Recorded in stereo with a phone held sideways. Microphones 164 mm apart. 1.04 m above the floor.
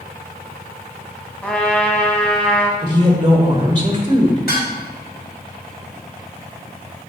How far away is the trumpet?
About 1.1 m.